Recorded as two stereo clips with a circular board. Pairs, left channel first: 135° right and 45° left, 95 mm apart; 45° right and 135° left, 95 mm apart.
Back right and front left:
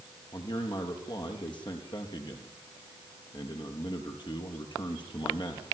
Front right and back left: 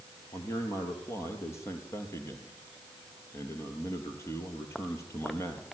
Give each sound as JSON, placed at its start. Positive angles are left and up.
{"t": 0.3, "sound": "a man speaking", "azimuth_deg": -105, "distance_m": 4.0}